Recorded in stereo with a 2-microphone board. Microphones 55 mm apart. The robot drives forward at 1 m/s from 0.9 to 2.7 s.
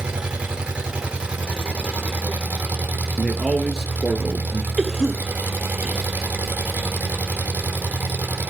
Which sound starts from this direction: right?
An engine running, at 0.0 s.